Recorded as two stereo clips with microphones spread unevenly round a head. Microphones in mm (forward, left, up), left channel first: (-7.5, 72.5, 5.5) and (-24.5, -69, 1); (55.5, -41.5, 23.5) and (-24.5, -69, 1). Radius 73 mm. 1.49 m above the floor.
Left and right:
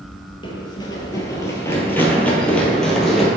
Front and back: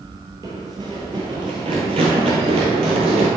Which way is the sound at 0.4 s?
125° left.